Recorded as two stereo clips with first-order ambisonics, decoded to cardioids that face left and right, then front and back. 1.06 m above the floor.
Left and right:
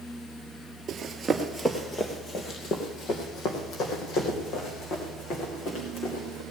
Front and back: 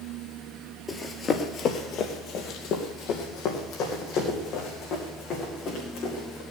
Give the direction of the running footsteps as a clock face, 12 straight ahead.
2 o'clock.